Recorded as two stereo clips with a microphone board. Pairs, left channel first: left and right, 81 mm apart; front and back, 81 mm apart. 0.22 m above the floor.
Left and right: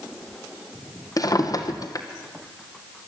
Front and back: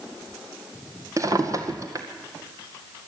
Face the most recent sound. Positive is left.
turn(degrees=130)